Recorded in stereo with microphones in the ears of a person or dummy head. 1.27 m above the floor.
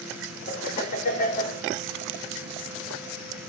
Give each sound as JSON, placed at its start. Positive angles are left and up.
{"t": 0.5, "sound": "laughter", "side_deg": 50, "distance_m": 4.0}